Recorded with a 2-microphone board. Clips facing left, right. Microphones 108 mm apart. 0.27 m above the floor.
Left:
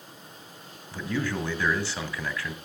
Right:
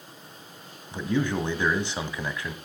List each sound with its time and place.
0.9 s a man speaking: 20° right (ahead or behind), 2.0 m